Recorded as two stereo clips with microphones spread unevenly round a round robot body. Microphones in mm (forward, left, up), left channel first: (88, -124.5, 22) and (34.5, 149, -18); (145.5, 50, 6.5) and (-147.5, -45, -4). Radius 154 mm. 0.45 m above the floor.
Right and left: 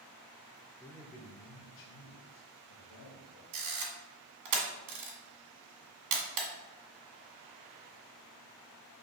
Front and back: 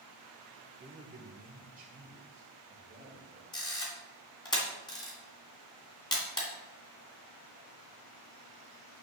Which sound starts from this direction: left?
A camera shutter, at 3.5 s.